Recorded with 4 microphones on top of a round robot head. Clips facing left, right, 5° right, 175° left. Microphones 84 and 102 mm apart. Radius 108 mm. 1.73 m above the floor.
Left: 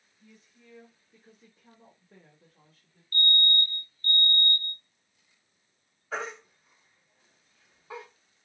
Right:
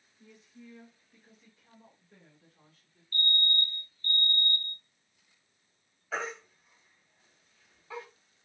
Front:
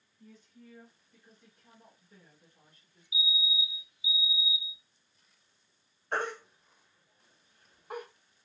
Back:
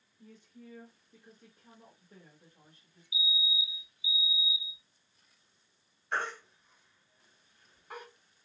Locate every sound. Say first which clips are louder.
0.2 s a woman speaking: right 5 dB, back 2 dB; 150° right, 0.8 m; by 3.0 s 105° left, 1.4 m
3.1 s a fire alarm: left 4 dB, front 1 dB; 115° left, 0.7 m
6.1 s a baby crying: left 1 dB, front 2 dB; 30° left, 0.9 m